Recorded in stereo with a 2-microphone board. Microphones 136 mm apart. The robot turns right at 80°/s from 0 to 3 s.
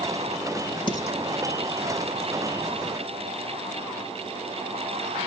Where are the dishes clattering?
40° left (ahead or behind), 4 m; by 1.2 s 15° left (ahead or behind), 4 m.